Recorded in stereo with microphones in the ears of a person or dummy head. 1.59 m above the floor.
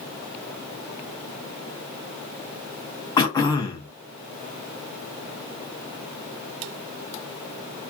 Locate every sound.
3.2 s throat clearing: 20° left (ahead or behind), 0.6 m